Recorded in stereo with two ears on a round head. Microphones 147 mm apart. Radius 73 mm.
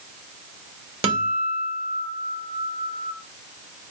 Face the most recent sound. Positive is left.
turn(degrees=-35)  # may be behind; listen again after turning